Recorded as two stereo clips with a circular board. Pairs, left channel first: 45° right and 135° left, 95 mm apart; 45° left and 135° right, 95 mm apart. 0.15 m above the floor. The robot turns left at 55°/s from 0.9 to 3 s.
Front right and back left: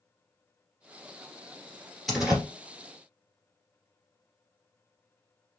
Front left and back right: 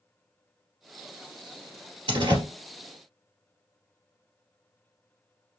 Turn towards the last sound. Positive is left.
turn(degrees=175)